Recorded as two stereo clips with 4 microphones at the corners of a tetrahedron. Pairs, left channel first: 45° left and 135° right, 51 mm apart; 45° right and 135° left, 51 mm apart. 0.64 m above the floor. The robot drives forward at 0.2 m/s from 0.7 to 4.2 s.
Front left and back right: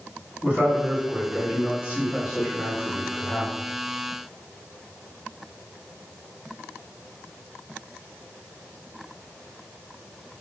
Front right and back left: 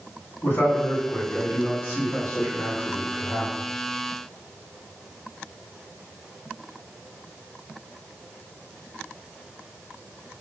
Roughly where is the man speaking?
Right.